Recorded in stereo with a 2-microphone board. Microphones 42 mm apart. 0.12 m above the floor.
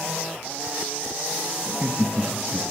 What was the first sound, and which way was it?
Laughter, 35° right (ahead or behind).